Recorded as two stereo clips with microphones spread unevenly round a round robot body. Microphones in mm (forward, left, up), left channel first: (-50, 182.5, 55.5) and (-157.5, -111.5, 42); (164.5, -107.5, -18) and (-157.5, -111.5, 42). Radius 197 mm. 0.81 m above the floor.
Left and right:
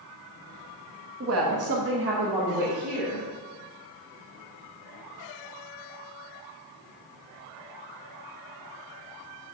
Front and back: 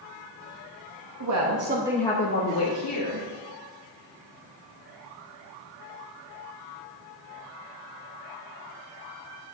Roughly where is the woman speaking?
Behind right.